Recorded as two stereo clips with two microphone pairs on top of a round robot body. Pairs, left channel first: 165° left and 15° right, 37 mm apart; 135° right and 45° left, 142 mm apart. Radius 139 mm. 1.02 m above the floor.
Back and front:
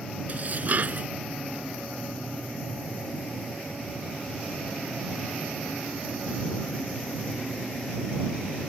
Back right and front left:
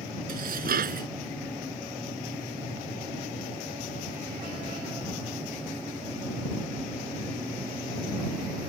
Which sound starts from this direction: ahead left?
Dishes clattering, at 0.3 s.